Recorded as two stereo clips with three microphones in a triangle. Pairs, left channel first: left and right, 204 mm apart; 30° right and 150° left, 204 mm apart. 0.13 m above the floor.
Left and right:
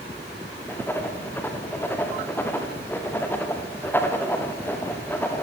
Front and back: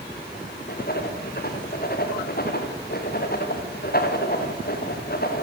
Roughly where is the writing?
Ahead.